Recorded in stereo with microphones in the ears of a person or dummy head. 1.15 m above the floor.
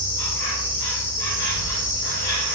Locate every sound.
0.0 s an insect: 65° left (ahead or behind), 1.5 m